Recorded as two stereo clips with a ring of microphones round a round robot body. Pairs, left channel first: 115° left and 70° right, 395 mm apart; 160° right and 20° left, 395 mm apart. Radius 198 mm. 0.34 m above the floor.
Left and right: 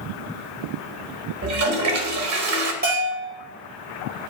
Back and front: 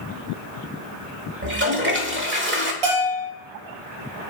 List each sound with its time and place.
1.4 s a toilet flushing: 30° right, 1.2 m
2.8 s a bell: straight ahead, 3.5 m